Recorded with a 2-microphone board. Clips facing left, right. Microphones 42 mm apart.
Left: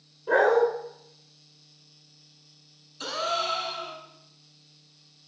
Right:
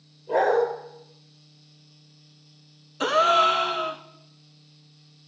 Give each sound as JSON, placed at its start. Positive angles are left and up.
{"t": 0.3, "sound": "a dog barking", "side_deg": 65, "distance_m": 7.5}
{"t": 3.0, "sound": "a gasp", "side_deg": -40, "distance_m": 0.8}